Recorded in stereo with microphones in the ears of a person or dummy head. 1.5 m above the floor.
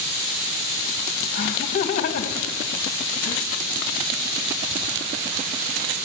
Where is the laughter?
40° left (ahead or behind), 1.7 m.